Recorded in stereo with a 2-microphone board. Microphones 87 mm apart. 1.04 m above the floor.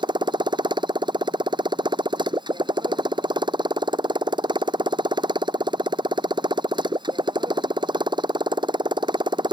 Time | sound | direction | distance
0.0 | a motorcycle | 60° right (ahead or behind) | ?